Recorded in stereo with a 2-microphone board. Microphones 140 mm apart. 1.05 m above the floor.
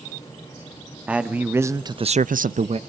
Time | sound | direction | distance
1.1 | a man speaking | 10° right (ahead or behind) | 1.6 m